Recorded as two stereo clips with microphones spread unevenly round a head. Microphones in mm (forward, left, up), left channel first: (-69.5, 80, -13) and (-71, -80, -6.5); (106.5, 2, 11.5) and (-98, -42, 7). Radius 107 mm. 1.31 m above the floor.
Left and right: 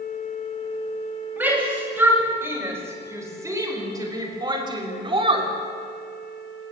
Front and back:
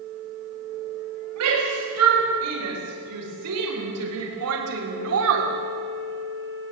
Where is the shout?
170° right, 6 m; by 5.5 s 145° right, 3 m.